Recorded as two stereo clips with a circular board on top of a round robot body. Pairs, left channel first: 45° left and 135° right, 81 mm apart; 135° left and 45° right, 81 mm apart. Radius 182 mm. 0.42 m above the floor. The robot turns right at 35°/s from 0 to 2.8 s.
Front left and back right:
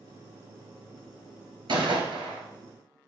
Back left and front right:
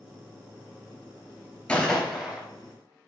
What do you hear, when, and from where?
1.7 s a gunshot: 145° right, 3 m; by 2.4 s 120° right, 3 m